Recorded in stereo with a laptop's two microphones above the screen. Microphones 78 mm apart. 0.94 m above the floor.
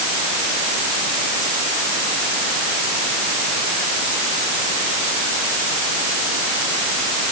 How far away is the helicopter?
I don't hear a helicopter.